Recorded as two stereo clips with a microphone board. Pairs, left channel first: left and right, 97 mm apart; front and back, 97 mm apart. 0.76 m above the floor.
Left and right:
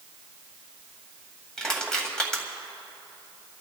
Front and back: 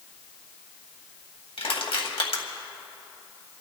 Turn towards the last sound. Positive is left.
turn(degrees=10)